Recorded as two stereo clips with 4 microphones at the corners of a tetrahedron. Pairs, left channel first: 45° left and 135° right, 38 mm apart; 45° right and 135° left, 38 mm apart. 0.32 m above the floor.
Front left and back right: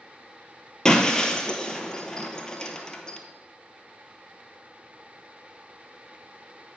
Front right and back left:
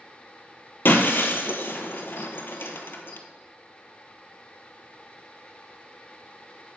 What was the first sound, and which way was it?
Breaking glass, 25° right.